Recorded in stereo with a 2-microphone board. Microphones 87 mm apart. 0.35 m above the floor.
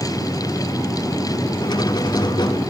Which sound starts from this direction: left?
A squeak, at 1.6 s.